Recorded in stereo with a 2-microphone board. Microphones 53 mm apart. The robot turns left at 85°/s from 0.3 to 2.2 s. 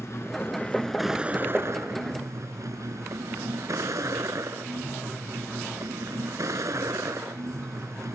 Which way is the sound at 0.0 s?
60° left.